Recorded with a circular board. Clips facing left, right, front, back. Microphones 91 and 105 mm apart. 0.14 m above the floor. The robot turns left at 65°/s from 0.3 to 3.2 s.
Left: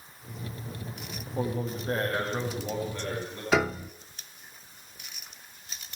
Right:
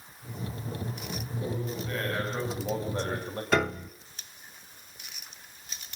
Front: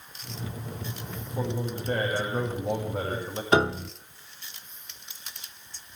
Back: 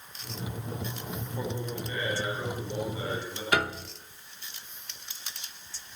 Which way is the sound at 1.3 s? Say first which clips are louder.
Left 4 dB, front 5 dB; 75° left.